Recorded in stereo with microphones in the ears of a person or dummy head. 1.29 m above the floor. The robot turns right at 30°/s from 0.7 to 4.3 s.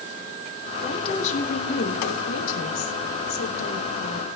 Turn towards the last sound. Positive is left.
turn(degrees=130)